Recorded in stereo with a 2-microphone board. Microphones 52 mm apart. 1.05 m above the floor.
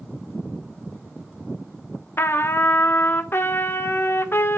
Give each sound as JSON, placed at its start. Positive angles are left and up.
{"t": 2.2, "sound": "a trumpet", "side_deg": 50, "distance_m": 0.9}